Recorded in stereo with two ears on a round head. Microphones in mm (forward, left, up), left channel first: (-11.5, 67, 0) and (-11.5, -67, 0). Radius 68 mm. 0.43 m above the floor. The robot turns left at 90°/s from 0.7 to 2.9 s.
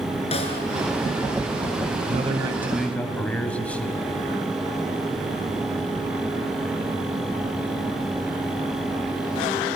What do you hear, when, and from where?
0.3 s a snare drum: 45° left (ahead or behind), 4.5 m
2.1 s a man speaking: 115° right, 3 m; by 4.0 s 170° left, 3 m